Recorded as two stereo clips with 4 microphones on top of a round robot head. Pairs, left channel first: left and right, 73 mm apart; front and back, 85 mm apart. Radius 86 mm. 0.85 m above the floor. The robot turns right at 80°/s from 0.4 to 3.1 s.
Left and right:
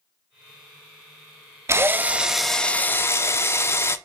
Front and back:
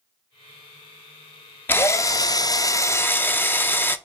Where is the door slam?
No door slam in this recording.